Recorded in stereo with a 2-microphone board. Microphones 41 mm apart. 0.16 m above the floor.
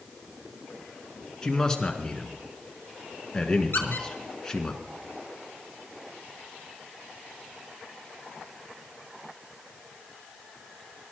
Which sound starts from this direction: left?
A squeak, at 3.7 s.